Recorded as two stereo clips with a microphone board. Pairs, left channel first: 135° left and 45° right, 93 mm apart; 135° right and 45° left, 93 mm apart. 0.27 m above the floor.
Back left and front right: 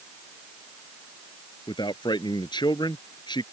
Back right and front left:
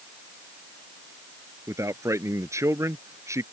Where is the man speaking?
100° left.